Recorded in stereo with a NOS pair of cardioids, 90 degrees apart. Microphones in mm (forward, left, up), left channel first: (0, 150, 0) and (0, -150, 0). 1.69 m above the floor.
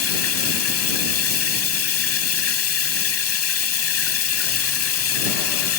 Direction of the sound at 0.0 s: 55° left.